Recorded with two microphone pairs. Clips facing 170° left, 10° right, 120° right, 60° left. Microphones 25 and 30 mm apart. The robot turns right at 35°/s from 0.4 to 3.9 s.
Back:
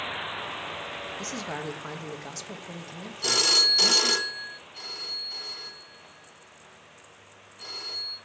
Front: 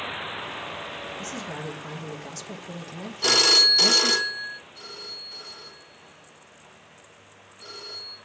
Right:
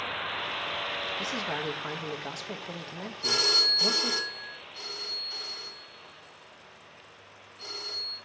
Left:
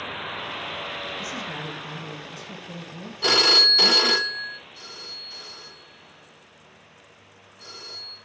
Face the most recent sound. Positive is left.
turn(degrees=-170)